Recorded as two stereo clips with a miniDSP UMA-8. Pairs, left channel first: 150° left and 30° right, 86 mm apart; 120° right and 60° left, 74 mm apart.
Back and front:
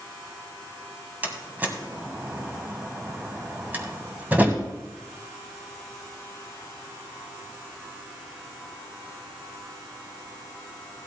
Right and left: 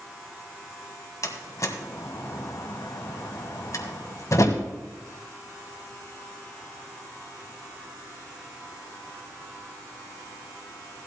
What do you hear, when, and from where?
1.2 s a door slam: 95° right, 1.5 m